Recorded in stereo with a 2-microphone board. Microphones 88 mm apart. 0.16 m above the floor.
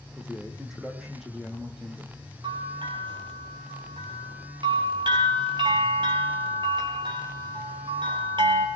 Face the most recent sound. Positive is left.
turn(degrees=-60)  # may be behind; listen again after turning